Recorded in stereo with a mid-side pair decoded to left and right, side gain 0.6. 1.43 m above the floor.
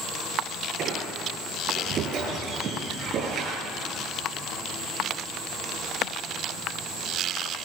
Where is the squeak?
45° right, 8.5 m.